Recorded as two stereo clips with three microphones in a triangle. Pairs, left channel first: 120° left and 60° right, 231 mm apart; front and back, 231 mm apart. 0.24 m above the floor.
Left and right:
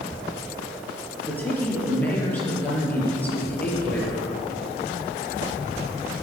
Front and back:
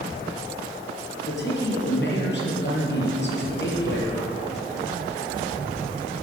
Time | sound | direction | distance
1.2 | a man speaking | 40° left | 5.5 m